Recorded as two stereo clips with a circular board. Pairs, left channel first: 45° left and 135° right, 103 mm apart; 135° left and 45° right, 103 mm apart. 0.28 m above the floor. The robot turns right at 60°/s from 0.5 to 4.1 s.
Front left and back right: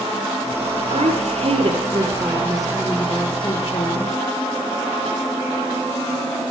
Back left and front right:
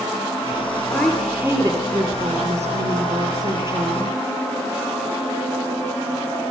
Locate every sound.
0.9 s a woman speaking: 160° right, 4.5 m; by 4.1 s 30° left, 4.5 m